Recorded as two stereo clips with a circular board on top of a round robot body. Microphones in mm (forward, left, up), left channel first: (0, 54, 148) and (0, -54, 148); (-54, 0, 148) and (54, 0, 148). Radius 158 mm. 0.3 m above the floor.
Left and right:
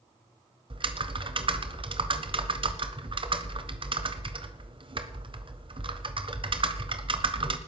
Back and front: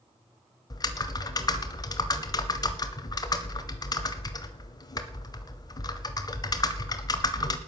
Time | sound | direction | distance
0.7 | typing on a keyboard | 125° right | 1.2 m